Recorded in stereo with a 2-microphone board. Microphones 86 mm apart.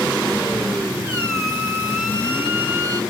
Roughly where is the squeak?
Right.